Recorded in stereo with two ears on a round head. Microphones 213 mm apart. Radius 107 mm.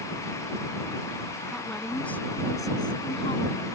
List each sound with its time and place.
1.5 s a woman speaking: centre (ahead or behind); by 3.7 s 30° left (ahead or behind)